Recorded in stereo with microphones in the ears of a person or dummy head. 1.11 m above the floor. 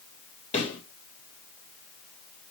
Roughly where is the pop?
Left.